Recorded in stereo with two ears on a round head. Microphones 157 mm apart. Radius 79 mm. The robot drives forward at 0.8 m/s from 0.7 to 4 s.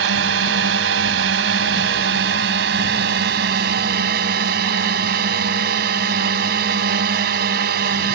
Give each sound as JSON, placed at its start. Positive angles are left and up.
{"t": 0.0, "sound": "a drone", "side_deg": -80}